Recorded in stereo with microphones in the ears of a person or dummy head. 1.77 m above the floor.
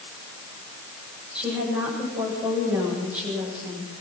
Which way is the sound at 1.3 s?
10° right (ahead or behind).